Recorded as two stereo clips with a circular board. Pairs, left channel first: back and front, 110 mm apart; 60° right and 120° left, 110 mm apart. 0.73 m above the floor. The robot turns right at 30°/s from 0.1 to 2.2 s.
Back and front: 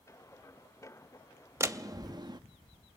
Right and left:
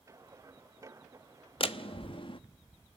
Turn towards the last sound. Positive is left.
turn(degrees=-40)